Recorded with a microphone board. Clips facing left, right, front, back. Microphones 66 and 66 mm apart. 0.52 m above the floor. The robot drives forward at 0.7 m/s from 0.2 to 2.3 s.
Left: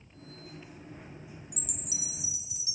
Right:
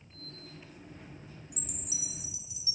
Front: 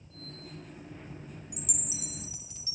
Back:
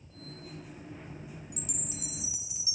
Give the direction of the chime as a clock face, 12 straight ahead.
10 o'clock.